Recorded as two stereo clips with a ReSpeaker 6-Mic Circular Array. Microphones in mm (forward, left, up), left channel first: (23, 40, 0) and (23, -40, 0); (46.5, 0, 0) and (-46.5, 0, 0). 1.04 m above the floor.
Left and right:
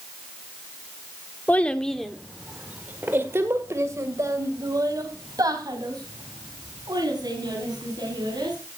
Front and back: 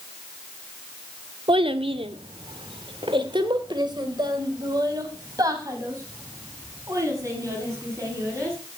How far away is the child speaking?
About 1.4 m.